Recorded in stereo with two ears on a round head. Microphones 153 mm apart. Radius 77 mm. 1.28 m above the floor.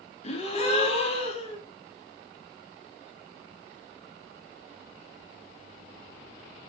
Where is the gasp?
40° left (ahead or behind), 3 m.